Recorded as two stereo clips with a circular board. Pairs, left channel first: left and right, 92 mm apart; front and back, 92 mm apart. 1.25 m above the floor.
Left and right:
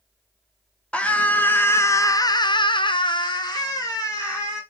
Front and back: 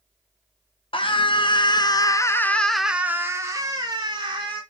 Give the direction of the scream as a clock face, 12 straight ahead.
12 o'clock.